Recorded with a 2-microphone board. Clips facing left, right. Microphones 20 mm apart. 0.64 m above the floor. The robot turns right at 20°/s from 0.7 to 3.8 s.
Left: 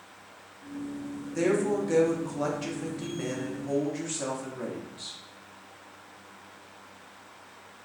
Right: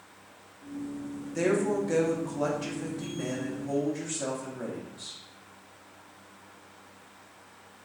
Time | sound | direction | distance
1.4 | a woman speaking | centre (ahead or behind) | 0.6 m